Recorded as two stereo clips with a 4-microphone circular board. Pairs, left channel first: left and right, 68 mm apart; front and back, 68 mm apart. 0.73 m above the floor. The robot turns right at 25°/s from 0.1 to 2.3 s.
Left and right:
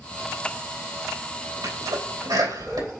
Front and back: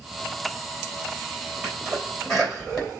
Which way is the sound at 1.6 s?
105° right.